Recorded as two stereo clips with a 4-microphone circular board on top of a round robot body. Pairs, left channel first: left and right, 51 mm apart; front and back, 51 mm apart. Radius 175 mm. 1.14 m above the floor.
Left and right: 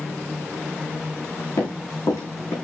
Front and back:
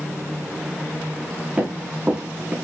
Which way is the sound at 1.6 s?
110° left.